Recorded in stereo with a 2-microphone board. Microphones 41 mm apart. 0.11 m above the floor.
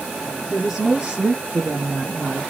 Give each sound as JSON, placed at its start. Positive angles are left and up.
{"t": 0.5, "sound": "a woman speaking", "side_deg": 0, "distance_m": 1.3}